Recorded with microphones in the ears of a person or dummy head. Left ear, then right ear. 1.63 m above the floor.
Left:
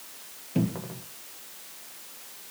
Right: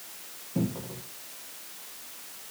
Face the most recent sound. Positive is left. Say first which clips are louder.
# left 2 dB
turn(degrees=70)  # may be behind; listen again after turning